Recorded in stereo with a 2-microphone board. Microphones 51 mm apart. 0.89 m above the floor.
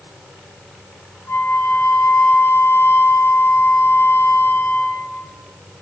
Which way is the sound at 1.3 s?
60° left (ahead or behind).